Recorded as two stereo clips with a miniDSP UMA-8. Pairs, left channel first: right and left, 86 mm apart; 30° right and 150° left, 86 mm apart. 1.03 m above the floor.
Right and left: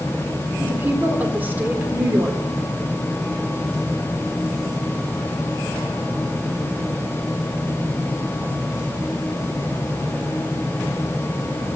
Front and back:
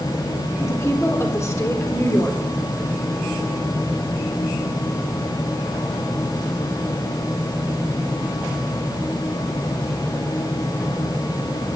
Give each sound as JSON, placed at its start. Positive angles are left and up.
{"t": 0.6, "sound": "a woman speaking", "azimuth_deg": 25, "distance_m": 4.0}